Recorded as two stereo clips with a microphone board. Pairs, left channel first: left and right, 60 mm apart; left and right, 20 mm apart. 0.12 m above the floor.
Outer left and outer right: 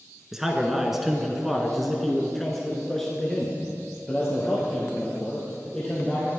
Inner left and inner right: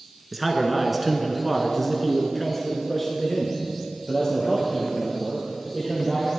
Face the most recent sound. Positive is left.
turn(degrees=10)  # may be behind; listen again after turning